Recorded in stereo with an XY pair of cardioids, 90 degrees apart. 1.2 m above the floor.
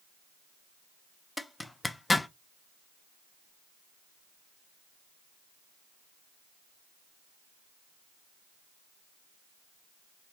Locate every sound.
1.4 s a zipper: 15° left, 0.6 m